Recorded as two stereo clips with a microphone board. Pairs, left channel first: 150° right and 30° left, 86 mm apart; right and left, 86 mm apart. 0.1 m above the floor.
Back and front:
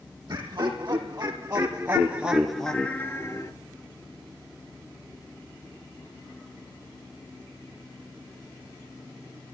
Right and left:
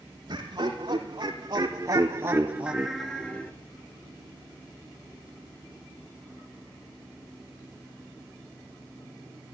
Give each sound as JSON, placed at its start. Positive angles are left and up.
{"t": 0.3, "sound": "laughter", "azimuth_deg": 60, "distance_m": 3.0}